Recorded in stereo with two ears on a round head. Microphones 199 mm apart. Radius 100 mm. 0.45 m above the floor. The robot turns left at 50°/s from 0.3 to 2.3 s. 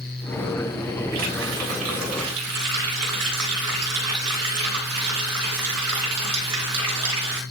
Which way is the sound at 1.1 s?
40° right.